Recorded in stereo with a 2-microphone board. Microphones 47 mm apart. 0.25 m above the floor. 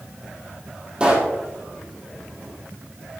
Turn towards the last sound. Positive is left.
turn(degrees=-20)  # may be behind; listen again after turning